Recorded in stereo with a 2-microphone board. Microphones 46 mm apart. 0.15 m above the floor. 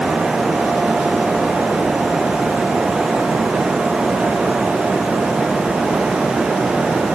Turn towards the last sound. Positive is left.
No sound to turn to.